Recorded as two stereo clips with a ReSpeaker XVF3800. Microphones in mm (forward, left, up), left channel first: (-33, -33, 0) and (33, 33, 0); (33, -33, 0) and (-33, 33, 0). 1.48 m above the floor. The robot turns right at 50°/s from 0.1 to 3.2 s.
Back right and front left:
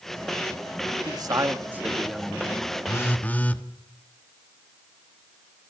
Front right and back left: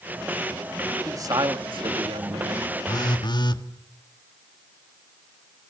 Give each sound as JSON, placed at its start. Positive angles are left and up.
{"t": 1.1, "sound": "a man speaking", "azimuth_deg": 80, "distance_m": 2.5}
{"t": 2.9, "sound": "a phone buzzing", "azimuth_deg": -80, "distance_m": 1.4}